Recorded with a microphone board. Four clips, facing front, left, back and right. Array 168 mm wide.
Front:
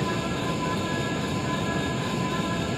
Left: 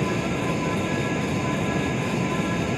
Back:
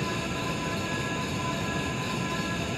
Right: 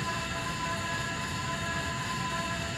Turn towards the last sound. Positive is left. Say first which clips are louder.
# left 9 dB, front 4 dB
turn(degrees=70)